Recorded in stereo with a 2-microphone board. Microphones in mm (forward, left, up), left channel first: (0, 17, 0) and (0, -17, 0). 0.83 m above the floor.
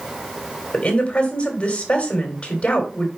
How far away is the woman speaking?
About 2.5 m.